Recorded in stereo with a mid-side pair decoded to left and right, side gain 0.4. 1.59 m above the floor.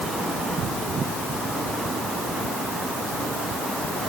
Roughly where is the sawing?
No sawing in this recording.